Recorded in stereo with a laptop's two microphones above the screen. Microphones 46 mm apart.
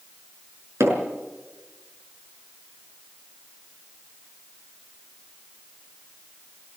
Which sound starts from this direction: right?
Hammering, at 0.8 s.